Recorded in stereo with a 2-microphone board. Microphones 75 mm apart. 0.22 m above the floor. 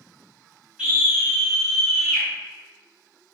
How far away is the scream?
About 1.1 m.